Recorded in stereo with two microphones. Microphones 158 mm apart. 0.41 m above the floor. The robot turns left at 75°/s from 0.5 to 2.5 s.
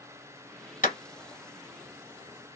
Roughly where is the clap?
Left.